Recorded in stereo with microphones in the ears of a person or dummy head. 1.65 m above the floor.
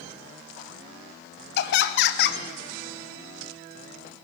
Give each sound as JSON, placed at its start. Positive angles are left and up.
{"t": 1.6, "sound": "laughter", "side_deg": 65, "distance_m": 0.5}